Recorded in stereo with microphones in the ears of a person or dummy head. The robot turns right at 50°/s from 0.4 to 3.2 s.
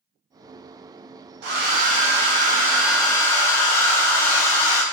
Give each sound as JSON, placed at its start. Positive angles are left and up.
{"t": 1.4, "sound": "a hair dryer", "azimuth_deg": -80, "distance_m": 0.8}